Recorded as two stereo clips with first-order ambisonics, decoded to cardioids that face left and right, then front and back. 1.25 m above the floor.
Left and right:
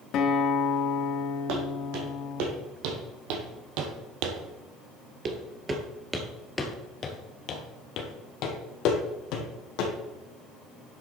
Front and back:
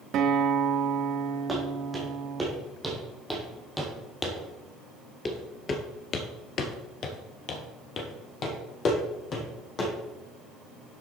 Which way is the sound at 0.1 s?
135° left.